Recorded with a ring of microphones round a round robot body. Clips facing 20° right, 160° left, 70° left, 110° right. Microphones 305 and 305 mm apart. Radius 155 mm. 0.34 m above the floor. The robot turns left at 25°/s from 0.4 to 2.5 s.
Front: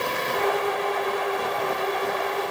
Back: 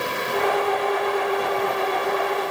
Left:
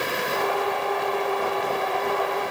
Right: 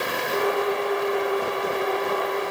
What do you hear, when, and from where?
Only background noise.